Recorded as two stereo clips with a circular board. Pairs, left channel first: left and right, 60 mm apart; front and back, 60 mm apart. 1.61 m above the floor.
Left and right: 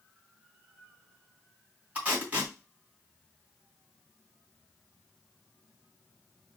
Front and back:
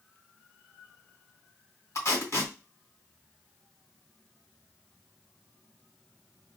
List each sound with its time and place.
1.9 s tape being pulled: 30° right, 2.5 m